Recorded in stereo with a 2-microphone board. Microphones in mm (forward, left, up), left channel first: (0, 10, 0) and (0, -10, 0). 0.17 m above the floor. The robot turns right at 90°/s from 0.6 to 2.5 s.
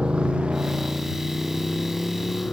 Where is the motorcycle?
55° right (ahead or behind); by 2.5 s 60° left (ahead or behind).